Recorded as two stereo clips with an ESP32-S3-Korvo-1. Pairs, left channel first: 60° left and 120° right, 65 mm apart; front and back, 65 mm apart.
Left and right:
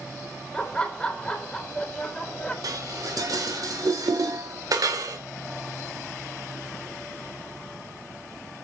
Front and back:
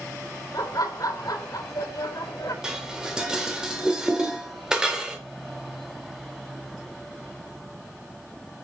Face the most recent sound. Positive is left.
turn(degrees=-100)